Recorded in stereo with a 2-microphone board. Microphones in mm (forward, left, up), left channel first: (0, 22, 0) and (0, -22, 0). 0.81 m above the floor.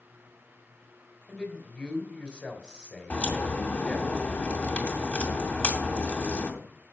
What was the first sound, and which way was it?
A man speaking, 25° left (ahead or behind).